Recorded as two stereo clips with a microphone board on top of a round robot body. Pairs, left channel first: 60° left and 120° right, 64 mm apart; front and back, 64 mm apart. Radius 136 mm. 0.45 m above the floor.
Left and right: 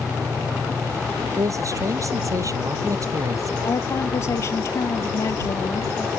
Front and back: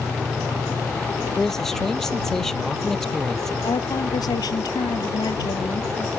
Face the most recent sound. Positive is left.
turn(degrees=15)